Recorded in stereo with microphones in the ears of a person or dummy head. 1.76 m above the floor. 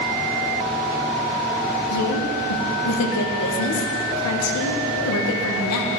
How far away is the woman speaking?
About 0.8 m.